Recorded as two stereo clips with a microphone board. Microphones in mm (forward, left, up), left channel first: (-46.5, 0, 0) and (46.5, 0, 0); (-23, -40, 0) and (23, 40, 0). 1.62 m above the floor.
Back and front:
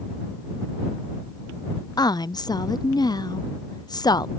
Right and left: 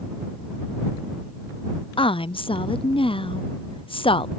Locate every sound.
2.0 s a woman speaking: 135° right